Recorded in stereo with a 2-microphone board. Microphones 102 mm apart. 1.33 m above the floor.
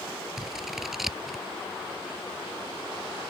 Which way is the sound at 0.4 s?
5° right (ahead or behind).